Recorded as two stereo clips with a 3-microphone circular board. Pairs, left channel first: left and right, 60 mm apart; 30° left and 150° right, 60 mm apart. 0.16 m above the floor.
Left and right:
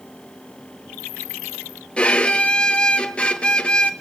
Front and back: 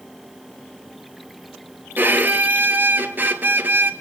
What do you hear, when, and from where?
2.0 s a violin: 160° left, 1.6 m